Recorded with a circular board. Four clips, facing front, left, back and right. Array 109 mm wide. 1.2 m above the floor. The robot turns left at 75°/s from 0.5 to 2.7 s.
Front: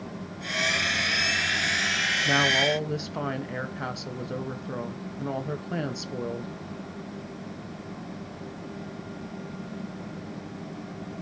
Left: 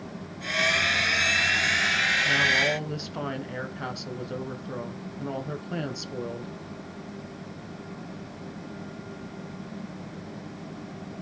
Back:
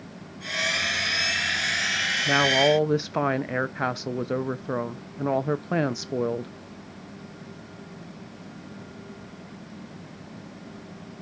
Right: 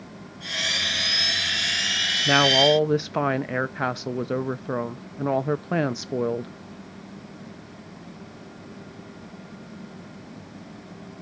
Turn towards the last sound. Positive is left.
turn(degrees=-130)